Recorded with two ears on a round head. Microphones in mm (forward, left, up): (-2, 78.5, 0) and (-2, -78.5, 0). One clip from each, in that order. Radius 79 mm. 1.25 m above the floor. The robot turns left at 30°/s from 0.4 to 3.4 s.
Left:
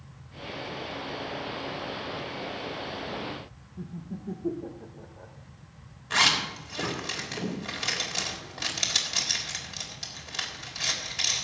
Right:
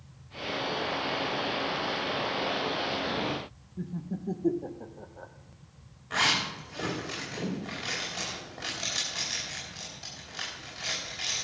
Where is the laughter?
80° right, 0.7 m.